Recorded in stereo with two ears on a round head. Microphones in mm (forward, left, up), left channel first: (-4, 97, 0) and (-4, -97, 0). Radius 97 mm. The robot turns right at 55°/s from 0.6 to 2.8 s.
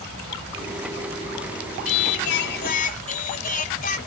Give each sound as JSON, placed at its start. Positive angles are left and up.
{"t": 1.9, "sound": "singing", "azimuth_deg": 90}